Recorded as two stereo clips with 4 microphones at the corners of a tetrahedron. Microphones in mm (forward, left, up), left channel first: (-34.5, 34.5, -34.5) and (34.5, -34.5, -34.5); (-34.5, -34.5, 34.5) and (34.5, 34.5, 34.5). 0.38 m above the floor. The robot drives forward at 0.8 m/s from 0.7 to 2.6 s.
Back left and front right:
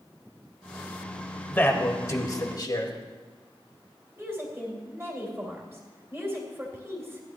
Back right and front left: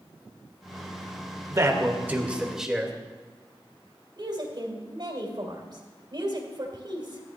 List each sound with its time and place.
1.5 s a man speaking: 75° left, 1.3 m; by 2.9 s 130° left, 1.5 m
4.2 s a woman speaking: 20° left, 2.5 m